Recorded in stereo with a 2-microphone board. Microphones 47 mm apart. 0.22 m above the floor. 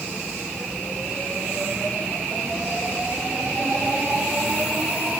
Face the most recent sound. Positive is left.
No sound to turn to.